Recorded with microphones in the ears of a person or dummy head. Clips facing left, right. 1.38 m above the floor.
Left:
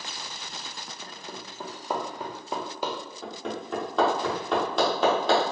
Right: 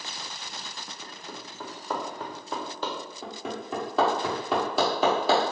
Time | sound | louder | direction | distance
1.0 | hammering | left 1 dB | 15° left (ahead or behind) | 0.6 m
3.2 | hammering | left 2 dB | centre (ahead or behind) | 1.1 m